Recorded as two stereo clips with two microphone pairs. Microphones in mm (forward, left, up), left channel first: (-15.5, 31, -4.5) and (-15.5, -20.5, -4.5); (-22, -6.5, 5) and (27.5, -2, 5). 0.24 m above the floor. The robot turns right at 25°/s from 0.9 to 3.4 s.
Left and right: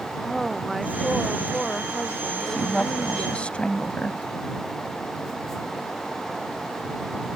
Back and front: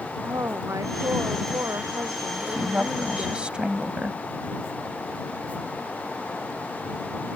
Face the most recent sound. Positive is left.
turn(degrees=50)